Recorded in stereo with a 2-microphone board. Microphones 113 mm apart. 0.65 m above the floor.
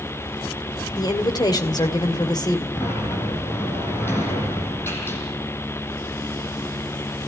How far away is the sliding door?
About 6.5 m.